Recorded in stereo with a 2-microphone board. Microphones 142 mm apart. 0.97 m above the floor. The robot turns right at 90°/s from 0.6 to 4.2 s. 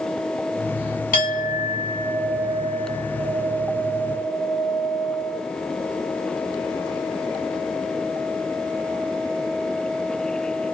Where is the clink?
80° left, 1.1 m; by 5.4 s straight ahead, 1.1 m.